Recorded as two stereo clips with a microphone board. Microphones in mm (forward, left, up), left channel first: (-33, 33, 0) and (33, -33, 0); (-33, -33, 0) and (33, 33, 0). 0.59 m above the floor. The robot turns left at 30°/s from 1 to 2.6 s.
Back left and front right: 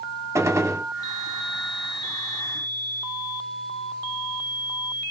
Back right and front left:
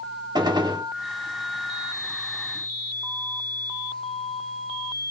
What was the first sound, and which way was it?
A gunshot, 10° left.